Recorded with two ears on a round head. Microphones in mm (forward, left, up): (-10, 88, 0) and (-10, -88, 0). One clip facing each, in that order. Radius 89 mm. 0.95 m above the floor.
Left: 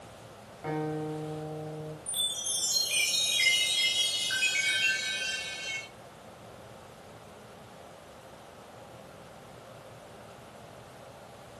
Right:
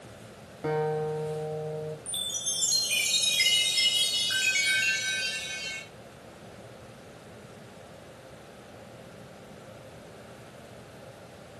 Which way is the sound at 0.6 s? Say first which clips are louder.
Right 5 dB; 65° right (ahead or behind).